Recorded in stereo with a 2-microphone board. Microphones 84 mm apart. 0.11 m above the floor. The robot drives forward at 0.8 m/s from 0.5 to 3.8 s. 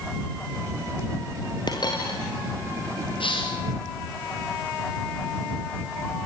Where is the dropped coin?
55° left (ahead or behind), 4.5 m.